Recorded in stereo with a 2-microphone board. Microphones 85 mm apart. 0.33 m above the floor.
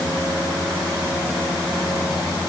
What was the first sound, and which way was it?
Only background noise.